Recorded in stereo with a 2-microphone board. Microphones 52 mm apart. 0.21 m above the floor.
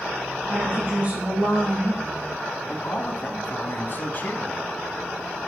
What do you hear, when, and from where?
0.5 s a woman speaking: 35° right (ahead or behind), 4.5 m
2.7 s a man speaking: 45° left (ahead or behind), 1.4 m